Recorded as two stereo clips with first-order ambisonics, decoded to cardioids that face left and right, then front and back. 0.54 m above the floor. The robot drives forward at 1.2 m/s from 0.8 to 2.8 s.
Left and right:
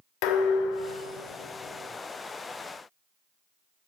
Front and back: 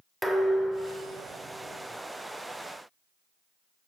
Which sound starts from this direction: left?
Dishes clattering, at 0.2 s.